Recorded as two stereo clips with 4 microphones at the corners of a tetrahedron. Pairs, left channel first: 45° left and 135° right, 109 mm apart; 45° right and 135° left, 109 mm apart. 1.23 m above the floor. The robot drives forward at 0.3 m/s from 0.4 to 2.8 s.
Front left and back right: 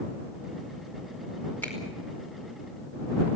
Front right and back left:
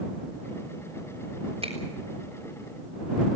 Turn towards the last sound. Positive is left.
turn(degrees=125)